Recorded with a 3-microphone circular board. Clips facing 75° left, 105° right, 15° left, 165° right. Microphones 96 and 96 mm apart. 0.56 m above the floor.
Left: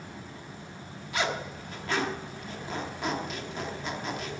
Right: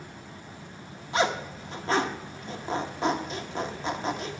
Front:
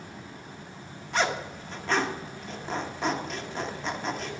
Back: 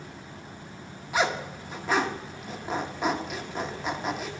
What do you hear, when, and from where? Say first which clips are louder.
1.1 s a zipper: right 5 dB, back 1 dB; 90° right, 1.1 m